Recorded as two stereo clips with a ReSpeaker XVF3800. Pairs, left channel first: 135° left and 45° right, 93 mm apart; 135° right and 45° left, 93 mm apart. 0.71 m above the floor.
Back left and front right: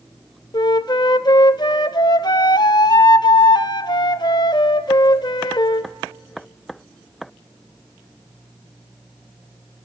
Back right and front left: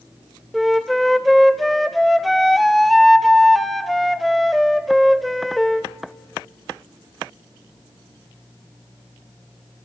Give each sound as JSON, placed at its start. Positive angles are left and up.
{"t": 0.5, "sound": "a flute", "azimuth_deg": 135, "distance_m": 0.5}